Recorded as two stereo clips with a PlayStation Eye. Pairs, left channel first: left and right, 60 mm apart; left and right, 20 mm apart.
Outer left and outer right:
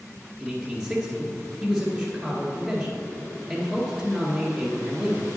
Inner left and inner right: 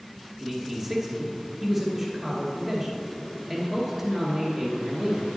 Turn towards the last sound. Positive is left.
turn(degrees=0)  # may be behind; listen again after turning